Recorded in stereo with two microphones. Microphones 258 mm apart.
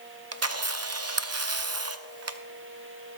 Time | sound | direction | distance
0.3 | a camera shutter | 70° right (ahead or behind) | 0.6 m